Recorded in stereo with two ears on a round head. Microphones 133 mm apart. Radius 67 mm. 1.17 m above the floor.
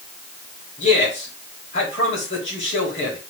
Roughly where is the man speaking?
Left.